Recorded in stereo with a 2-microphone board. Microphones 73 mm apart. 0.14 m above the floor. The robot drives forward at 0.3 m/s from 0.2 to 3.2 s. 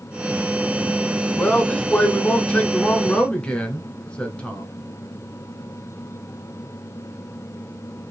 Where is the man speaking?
20° left (ahead or behind), 1.2 m; by 4.7 s 15° left (ahead or behind), 1.4 m.